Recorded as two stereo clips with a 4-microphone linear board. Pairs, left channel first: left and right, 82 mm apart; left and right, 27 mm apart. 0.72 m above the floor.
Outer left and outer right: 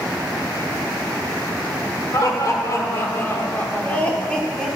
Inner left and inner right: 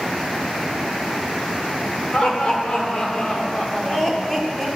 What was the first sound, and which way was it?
Laughter, 45° left (ahead or behind).